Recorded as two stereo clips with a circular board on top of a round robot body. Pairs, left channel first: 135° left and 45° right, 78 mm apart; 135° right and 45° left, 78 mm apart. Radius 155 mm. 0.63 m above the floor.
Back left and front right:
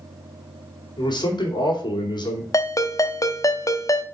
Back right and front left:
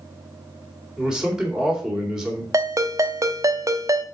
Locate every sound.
1.0 s a man speaking: 125° left, 2.5 m
2.5 s a ringtone: 90° left, 1.0 m